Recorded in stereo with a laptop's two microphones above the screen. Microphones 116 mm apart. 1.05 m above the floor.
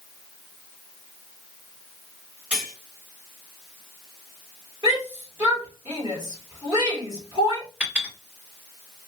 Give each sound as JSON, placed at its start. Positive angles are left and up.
{"t": 2.5, "sound": "cutlery clinking", "side_deg": -10, "distance_m": 3.0}
{"t": 4.8, "sound": "a shout", "side_deg": -30, "distance_m": 2.5}
{"t": 7.8, "sound": "a clink", "side_deg": -15, "distance_m": 3.0}